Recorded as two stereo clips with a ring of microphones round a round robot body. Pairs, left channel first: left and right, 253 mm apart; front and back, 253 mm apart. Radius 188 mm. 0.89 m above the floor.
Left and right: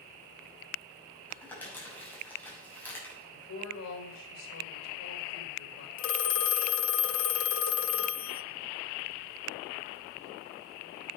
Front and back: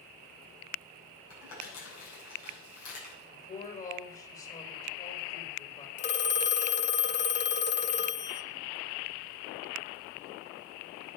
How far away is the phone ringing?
About 1.0 m.